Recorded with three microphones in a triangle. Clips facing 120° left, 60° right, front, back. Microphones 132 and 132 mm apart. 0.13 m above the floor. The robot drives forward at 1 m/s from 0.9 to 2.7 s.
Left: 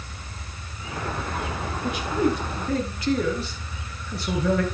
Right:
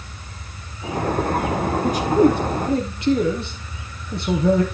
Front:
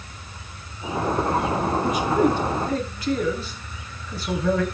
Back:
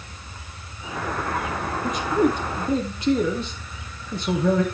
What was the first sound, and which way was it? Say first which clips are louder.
A man speaking: right 7 dB, back 1 dB; 80° right.